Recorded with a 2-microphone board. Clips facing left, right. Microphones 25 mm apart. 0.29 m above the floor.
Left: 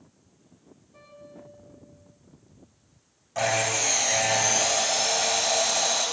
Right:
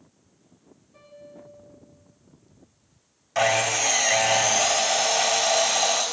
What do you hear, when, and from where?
0.9 s a piano: centre (ahead or behind), 6 m
3.4 s sawing: 80° right, 3 m